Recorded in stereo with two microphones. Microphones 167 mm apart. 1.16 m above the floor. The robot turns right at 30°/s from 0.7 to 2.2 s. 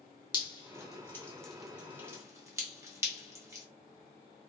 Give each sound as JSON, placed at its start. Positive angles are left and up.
{"t": 0.3, "sound": "dripping", "side_deg": 25, "distance_m": 0.7}